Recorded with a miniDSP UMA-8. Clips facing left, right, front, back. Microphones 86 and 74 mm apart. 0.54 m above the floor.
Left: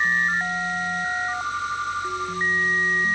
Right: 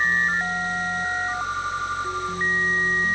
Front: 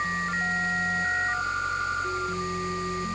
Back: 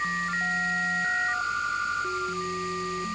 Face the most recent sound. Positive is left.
No sound to turn to.